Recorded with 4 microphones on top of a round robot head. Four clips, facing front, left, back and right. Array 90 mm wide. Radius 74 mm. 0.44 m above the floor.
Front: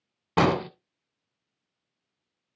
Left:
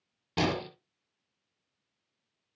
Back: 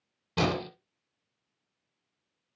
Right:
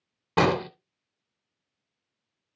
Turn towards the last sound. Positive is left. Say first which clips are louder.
# right 7 dB, front 6 dB
turn(degrees=-40)